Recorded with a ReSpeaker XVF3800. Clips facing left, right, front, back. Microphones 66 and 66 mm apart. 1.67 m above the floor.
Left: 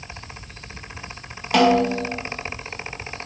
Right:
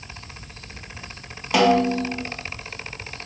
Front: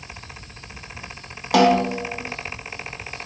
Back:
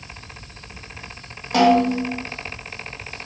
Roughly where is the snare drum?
Ahead.